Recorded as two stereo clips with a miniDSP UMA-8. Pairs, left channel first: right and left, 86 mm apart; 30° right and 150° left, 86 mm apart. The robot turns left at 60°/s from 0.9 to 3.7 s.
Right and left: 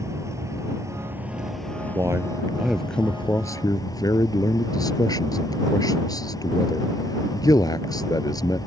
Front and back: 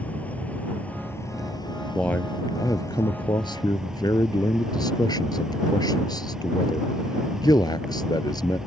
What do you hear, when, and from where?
0.0 s an insect: 40° left; by 8.7 s 130° right
1.9 s a man speaking: 45° left; by 8.6 s 60° right